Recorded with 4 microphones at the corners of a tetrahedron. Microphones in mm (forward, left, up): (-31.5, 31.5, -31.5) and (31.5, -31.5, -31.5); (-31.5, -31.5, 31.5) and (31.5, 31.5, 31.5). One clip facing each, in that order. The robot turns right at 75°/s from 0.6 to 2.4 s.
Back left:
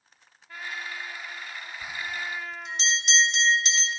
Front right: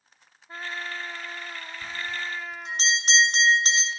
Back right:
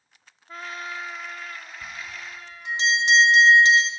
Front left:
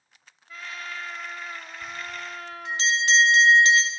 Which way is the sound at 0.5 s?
95° right.